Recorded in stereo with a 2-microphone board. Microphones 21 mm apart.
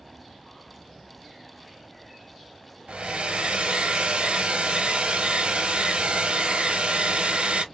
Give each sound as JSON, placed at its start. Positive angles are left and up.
{"t": 2.9, "sound": "a hair dryer", "side_deg": -70, "distance_m": 0.9}